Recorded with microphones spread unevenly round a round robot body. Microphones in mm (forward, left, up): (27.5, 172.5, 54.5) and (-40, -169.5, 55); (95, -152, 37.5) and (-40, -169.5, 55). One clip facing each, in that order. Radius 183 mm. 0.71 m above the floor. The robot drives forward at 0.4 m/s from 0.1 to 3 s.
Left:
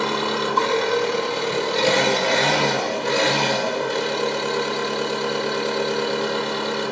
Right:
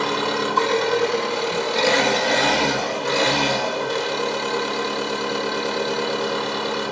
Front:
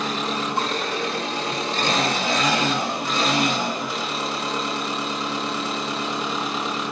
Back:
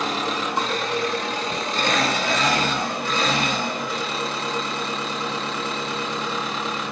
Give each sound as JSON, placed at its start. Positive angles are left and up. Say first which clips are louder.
{"t": 0.0, "sound": "an engine running", "louder": "even, back 1 dB", "azimuth_deg": -170, "distance_m": 0.8}